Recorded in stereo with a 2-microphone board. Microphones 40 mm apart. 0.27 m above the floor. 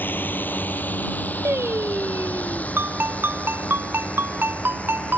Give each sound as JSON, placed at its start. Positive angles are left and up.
{"t": 0.0, "sound": "a drone", "side_deg": 55}
{"t": 1.4, "sound": "singing", "side_deg": -80}
{"t": 2.8, "sound": "a ringtone", "side_deg": -65}